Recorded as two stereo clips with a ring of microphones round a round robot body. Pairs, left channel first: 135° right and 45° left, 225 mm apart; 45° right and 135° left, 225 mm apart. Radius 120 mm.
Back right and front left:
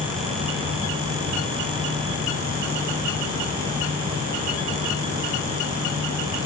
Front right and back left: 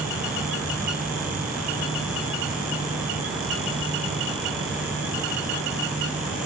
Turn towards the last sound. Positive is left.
No sound to turn to.